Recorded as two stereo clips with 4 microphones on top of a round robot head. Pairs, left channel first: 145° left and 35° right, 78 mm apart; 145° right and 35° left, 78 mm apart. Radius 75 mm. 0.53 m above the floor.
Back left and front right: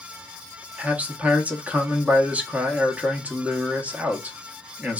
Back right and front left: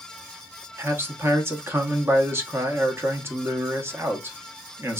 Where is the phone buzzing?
No phone buzzing in this recording.